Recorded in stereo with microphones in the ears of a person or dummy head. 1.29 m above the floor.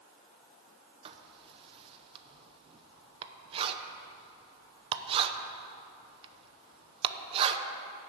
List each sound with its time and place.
1.1 s writing: 30° right (ahead or behind), 0.7 m